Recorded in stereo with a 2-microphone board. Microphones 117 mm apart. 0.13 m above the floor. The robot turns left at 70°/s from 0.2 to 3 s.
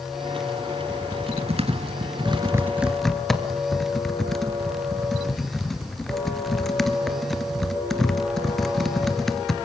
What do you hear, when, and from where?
0.9 s typing on a keyboard: 30° right (ahead or behind), 1.9 m; by 9.6 s 5° left (ahead or behind), 1.9 m